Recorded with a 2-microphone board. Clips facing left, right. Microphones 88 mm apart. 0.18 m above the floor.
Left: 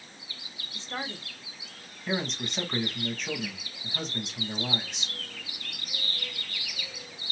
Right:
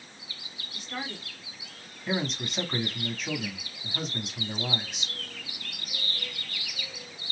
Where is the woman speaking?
25° left (ahead or behind), 1.1 m.